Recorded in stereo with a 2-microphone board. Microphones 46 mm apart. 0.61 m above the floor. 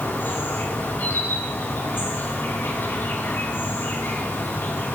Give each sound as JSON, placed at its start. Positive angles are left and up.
{"t": 0.0, "sound": "an insect", "side_deg": 65, "distance_m": 4.0}